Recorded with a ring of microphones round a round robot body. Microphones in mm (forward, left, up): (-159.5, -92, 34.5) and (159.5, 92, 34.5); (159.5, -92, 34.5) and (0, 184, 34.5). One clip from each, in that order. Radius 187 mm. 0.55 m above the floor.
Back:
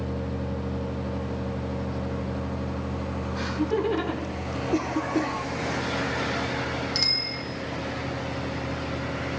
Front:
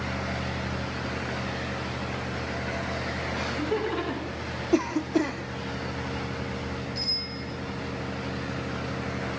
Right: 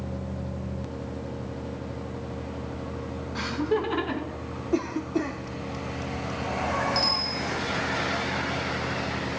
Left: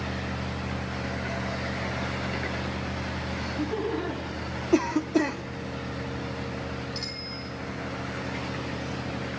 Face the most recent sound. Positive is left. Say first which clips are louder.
# back 5 dB, right 10 dB
turn(degrees=-140)